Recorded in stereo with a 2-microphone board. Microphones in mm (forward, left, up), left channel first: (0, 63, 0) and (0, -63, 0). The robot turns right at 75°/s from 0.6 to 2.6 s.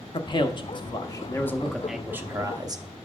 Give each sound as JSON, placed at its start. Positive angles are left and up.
{"t": 0.1, "sound": "a man speaking", "azimuth_deg": 90, "distance_m": 0.8}